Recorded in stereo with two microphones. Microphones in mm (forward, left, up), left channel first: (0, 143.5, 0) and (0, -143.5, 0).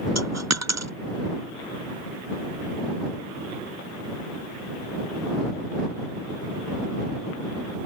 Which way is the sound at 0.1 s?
65° right (ahead or behind).